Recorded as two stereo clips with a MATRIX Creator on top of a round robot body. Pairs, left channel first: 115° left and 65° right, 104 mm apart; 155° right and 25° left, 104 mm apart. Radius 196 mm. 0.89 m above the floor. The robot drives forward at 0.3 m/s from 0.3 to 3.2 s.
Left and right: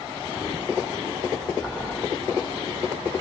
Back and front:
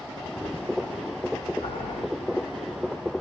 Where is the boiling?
155° right, 1.4 m.